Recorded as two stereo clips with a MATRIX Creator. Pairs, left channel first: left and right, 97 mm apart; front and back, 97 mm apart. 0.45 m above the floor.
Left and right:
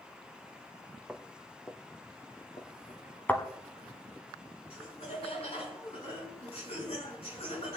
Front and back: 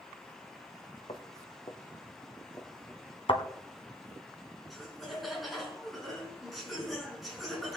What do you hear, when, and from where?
1.1 s footsteps: straight ahead, 1.8 m; by 3.0 s 65° left, 3 m
3.3 s a thud: 15° left, 1.7 m
4.7 s laughter: 90° left, 5.5 m